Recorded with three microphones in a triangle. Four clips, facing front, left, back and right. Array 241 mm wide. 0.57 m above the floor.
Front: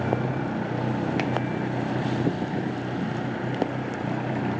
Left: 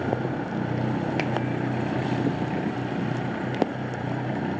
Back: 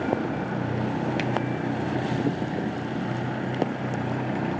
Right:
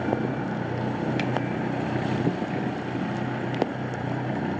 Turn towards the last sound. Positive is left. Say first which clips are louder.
# left 1 dB, front 1 dB
turn(degrees=55)